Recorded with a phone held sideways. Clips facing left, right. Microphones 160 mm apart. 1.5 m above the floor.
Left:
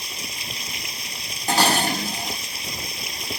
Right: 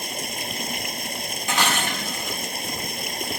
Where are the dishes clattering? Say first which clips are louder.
Left 5 dB; 35° left (ahead or behind).